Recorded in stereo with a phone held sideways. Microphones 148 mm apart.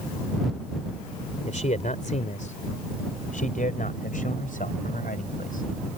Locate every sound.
1.5 s a man speaking: 55° left (ahead or behind); by 5.7 s 70° left (ahead or behind)